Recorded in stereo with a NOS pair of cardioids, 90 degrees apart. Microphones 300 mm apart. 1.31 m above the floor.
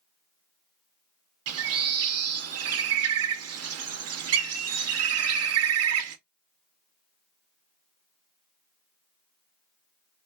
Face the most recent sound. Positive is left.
turn(degrees=-60)